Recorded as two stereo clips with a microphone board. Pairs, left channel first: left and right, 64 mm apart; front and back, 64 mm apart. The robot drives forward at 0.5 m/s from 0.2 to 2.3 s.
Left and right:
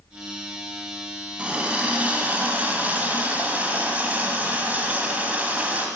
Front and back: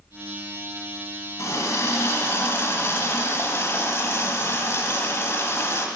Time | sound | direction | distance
1.4 | a running tap | 20° right | 1.6 m